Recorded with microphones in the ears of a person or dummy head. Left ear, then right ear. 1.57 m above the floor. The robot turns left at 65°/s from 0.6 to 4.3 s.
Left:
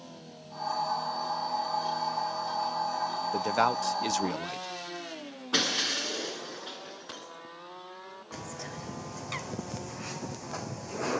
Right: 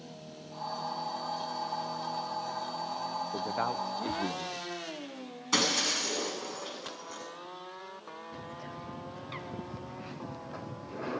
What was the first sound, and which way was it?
A man speaking, 125° left.